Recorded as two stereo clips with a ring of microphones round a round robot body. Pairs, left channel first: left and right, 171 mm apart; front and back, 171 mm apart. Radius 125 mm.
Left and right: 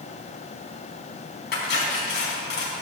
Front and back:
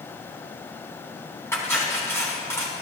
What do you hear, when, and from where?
1.5 s cutlery clinking: 75° left, 4 m